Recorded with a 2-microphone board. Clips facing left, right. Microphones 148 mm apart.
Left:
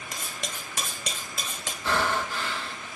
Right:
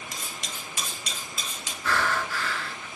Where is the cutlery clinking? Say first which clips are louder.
Left 2 dB; 50° left (ahead or behind), 1.9 m.